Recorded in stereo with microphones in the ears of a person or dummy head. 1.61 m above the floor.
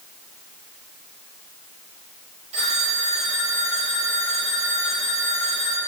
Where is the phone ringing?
35° right (ahead or behind), 1.7 m.